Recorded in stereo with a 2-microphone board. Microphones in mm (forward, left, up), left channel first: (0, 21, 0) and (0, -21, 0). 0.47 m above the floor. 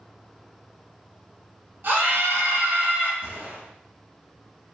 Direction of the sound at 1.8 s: 55° right (ahead or behind).